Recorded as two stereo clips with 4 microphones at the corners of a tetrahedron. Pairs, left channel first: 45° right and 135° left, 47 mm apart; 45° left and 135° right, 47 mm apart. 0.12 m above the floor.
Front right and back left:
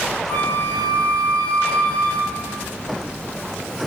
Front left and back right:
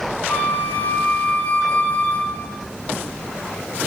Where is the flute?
5° right, 1.1 m.